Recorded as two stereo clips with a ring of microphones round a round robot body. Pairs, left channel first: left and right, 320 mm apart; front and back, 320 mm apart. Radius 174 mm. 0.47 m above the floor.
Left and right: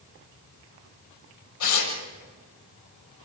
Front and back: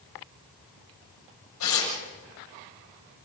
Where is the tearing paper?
55° left, 6.5 m.